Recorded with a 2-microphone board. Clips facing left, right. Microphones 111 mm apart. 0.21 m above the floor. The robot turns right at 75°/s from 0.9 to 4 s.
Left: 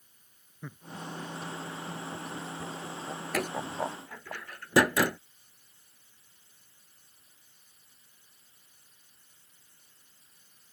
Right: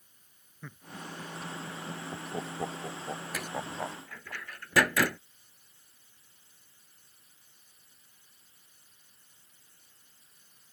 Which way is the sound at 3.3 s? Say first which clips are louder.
Left 8 dB; 65° left (ahead or behind).